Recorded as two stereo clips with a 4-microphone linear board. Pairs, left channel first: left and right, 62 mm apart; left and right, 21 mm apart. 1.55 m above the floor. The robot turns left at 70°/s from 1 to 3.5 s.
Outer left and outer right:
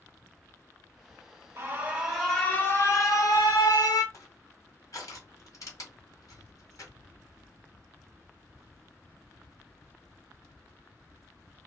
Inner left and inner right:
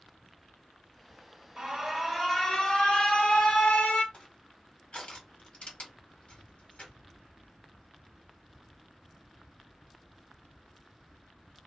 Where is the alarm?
135° right, 1.4 m; by 4.0 s 90° left, 1.4 m.